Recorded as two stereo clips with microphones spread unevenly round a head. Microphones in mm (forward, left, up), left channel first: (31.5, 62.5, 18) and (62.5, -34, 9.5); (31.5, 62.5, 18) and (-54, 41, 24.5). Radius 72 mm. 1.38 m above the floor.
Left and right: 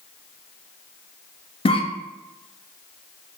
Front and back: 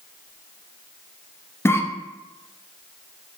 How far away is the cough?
About 0.6 m.